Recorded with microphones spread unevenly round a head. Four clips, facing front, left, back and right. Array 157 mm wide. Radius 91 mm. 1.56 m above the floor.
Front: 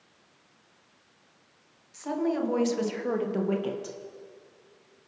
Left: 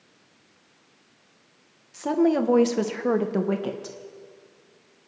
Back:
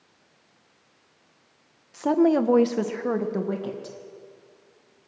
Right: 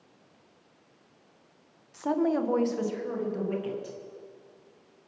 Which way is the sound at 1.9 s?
155° left.